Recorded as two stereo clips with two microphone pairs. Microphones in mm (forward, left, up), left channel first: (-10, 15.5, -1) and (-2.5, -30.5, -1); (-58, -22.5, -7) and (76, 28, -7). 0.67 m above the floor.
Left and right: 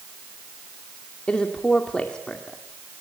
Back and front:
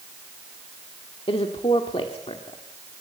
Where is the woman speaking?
160° left, 1.7 m.